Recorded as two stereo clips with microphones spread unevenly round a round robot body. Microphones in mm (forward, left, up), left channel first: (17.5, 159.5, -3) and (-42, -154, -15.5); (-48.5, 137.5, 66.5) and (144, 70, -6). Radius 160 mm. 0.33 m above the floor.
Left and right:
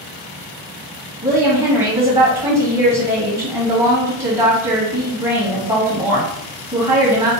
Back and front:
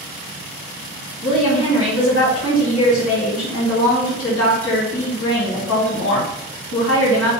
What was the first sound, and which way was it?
A woman speaking, straight behind.